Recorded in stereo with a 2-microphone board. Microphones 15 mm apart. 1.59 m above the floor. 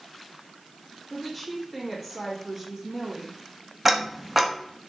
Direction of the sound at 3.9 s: 15° right (ahead or behind).